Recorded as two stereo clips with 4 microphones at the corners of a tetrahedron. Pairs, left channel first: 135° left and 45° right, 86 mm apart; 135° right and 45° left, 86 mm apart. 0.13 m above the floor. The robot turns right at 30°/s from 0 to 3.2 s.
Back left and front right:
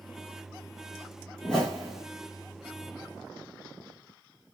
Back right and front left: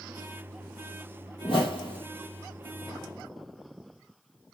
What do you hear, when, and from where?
1.4 s a whoosh: 150° right, 1.9 m; by 2.0 s 130° right, 1.9 m